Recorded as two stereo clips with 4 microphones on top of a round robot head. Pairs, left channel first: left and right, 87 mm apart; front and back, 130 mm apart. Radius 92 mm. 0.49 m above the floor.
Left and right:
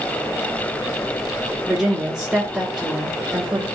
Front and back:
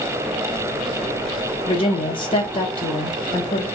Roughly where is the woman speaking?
Ahead.